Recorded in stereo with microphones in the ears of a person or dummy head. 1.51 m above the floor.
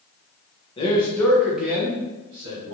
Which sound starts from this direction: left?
A man speaking, at 0.8 s.